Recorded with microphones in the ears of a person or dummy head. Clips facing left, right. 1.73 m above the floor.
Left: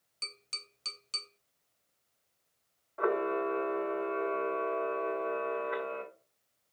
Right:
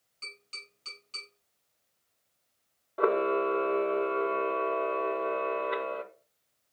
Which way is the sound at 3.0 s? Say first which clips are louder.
Right 4 dB; 55° right (ahead or behind).